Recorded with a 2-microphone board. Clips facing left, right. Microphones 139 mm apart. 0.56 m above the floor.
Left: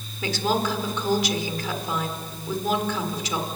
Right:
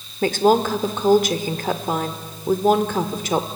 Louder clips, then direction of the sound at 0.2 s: Right 8 dB; 55° right (ahead or behind).